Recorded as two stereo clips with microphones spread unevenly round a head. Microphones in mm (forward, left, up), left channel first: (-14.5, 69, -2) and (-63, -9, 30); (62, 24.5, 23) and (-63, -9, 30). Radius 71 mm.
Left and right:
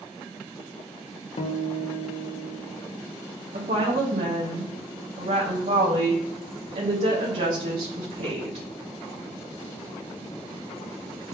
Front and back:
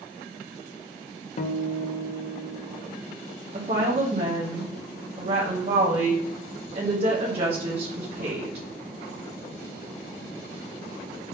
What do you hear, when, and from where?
1.4 s a guitar: 50° left, 0.5 m
3.5 s a woman speaking: 120° right, 0.8 m